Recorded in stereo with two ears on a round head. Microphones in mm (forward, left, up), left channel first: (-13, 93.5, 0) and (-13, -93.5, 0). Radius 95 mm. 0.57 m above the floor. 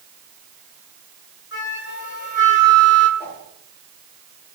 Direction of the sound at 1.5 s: 50° left (ahead or behind).